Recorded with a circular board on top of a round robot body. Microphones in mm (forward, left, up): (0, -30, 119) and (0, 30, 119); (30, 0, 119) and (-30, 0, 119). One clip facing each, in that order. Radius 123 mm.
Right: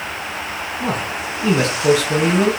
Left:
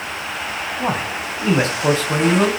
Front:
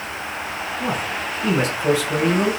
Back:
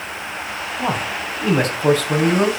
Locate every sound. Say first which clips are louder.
0.8 s a man speaking: even, back 3 dB; 140° left, 3 m